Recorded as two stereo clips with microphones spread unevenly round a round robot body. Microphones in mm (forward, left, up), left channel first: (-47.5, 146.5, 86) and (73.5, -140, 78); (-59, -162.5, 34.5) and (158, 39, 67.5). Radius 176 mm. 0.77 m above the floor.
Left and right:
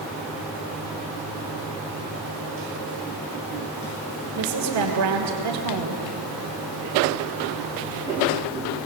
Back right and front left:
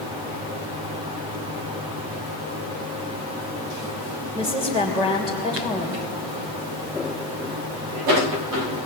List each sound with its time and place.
4.3 s a woman speaking: 35° right, 3 m